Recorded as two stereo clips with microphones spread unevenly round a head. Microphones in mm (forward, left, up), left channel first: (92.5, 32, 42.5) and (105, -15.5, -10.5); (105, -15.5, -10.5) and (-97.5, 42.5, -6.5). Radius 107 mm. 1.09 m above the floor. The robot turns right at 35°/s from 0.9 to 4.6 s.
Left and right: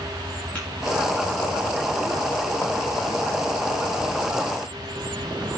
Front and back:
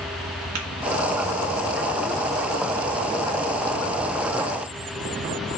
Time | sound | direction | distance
0.6 | tapping | 170° right | 2 m